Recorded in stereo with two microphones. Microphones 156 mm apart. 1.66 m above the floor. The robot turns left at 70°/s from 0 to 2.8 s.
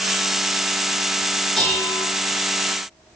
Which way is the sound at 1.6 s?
Straight behind.